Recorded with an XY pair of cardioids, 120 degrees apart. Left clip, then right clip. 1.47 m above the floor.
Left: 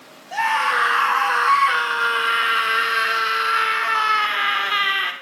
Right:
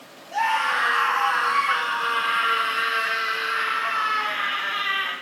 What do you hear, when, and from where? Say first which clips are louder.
0.3 s a scream: left 3 dB; 45° left, 6.5 m; by 5.1 s 75° left, 4.5 m